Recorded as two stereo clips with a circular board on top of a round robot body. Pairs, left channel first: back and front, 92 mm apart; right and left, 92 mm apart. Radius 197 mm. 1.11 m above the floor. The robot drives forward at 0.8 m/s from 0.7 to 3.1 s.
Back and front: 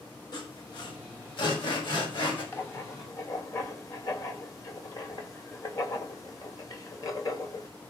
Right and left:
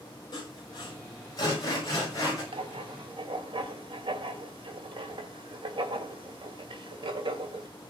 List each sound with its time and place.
0.3 s sawing: 135° right, 7 m; by 2.4 s 140° right, 8 m
2.5 s writing: 115° left, 1.7 m; by 7.7 s 125° left, 1.9 m